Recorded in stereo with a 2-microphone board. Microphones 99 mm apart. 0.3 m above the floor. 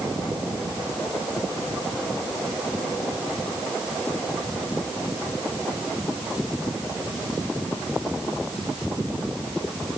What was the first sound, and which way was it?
Only background noise.